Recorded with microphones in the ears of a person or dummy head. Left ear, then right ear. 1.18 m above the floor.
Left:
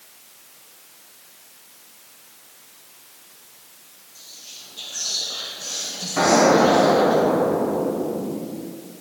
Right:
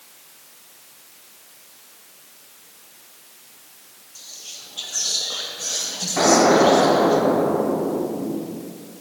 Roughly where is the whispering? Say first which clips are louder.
Right 3 dB; right.